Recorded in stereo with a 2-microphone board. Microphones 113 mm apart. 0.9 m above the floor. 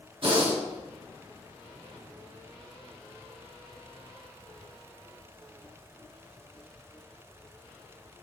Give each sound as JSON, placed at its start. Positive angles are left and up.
{"t": 0.2, "sound": "breathing", "side_deg": -55, "distance_m": 3.5}